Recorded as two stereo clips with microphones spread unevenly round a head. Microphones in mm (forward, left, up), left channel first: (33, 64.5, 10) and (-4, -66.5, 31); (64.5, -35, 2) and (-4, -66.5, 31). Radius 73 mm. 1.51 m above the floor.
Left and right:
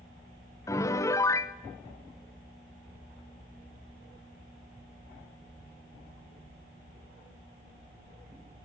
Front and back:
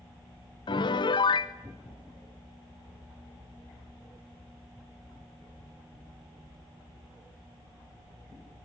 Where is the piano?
5° left, 1.0 m.